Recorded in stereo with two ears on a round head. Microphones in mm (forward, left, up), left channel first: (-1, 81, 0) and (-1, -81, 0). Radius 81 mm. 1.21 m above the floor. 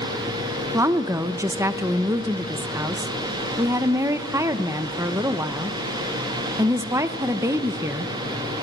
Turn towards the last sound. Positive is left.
turn(degrees=-15)  # may be behind; listen again after turning